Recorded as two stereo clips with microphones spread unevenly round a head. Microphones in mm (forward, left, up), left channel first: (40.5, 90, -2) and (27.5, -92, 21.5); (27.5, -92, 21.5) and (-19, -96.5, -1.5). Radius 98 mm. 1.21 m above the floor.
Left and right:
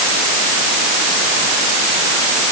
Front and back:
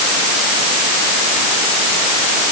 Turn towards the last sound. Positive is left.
No sound to turn to.